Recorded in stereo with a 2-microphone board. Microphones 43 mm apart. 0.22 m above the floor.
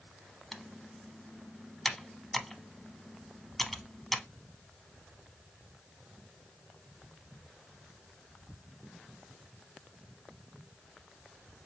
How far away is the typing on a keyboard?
About 0.7 m.